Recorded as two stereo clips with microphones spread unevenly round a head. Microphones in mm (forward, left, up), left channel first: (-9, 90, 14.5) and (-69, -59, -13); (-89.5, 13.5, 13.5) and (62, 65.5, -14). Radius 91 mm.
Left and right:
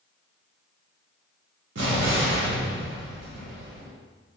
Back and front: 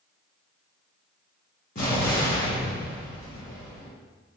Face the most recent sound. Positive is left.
turn(degrees=-120)